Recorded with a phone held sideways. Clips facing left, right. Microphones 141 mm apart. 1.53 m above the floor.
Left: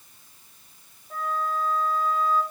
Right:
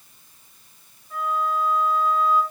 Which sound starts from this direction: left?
A flute, at 1.1 s.